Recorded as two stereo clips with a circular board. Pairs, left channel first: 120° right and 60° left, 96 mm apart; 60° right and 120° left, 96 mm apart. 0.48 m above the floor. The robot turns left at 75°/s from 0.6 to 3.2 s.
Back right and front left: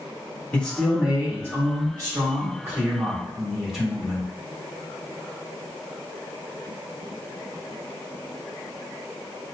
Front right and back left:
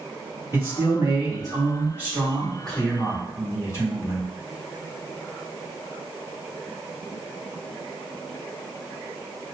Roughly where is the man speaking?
Behind.